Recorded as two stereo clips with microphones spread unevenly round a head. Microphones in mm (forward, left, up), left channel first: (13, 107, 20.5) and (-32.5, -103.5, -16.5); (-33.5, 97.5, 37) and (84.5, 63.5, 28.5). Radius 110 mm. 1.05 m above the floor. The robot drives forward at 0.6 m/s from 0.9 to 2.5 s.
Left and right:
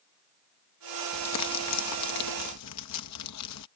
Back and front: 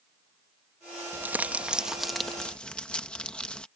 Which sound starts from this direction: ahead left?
Crumpling, at 1.1 s.